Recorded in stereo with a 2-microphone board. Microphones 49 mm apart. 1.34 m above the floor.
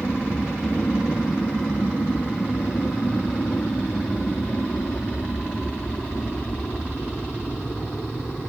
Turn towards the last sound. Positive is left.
turn(degrees=55)  # may be behind; listen again after turning